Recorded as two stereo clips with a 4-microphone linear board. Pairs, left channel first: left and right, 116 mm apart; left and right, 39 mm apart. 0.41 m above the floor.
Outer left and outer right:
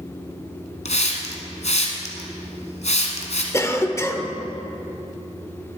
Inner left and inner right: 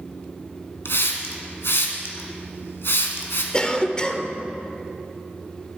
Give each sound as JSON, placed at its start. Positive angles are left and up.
{"t": 0.8, "sound": "a hiss", "side_deg": 85, "distance_m": 1.8}
{"t": 3.5, "sound": "a cough", "side_deg": 25, "distance_m": 1.1}